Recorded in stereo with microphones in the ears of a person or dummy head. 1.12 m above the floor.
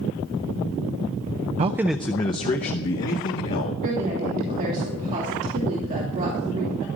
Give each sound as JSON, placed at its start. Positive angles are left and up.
{"t": 1.6, "sound": "a man speaking", "side_deg": -30, "distance_m": 0.5}
{"t": 3.8, "sound": "a woman speaking", "side_deg": -40, "distance_m": 3.0}